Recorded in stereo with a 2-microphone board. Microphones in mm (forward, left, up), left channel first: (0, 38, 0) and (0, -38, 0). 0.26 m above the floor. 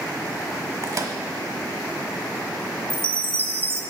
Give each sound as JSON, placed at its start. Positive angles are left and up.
{"t": 0.8, "sound": "a microwave", "side_deg": -50, "distance_m": 1.0}
{"t": 2.9, "sound": "a chime", "side_deg": -30, "distance_m": 0.8}